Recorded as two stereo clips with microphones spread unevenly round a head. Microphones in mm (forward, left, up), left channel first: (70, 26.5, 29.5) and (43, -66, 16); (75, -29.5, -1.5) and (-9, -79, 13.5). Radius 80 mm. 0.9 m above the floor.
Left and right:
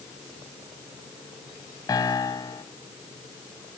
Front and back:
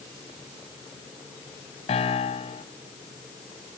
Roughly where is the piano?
Ahead left.